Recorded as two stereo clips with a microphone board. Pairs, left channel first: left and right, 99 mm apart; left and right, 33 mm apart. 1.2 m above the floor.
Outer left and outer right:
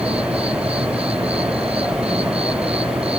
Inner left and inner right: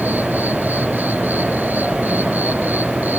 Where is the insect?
85° right.